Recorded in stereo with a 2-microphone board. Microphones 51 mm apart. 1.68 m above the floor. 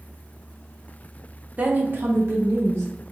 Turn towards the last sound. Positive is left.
turn(degrees=-60)  # may be behind; listen again after turning